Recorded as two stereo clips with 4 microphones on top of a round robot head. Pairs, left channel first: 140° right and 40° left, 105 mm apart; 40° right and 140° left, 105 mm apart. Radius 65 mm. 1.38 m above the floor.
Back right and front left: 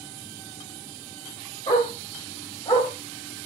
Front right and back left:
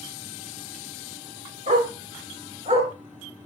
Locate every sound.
1.7 s a dog barking: 165° left, 6.5 m; by 2.9 s 160° left, 5.5 m